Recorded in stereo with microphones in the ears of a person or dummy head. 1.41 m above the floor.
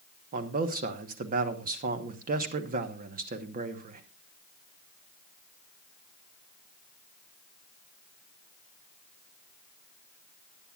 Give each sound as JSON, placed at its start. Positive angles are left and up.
{"t": 0.3, "sound": "a man speaking", "side_deg": -45, "distance_m": 1.1}